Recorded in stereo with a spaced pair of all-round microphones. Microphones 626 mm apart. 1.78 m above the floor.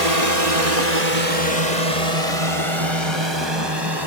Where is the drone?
70° right (ahead or behind); by 4.1 s 35° right (ahead or behind).